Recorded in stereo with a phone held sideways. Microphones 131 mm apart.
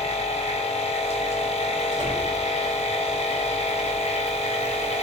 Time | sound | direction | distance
0.0 | a machine running | 55° left (ahead or behind) | 1.0 m
1.9 | a door slam | 65° right (ahead or behind) | 1.1 m